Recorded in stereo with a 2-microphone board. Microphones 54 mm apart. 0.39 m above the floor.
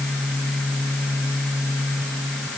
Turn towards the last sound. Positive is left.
No sound to turn to.